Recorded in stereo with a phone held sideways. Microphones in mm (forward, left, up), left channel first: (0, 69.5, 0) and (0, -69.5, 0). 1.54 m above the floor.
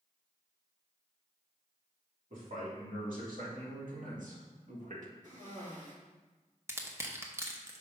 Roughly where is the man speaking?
Right.